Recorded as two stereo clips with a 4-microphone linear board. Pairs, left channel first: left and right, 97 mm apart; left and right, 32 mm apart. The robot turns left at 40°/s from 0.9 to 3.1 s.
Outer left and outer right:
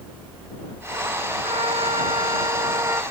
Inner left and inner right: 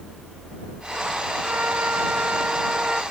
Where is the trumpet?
90° right; by 3.0 s 150° right.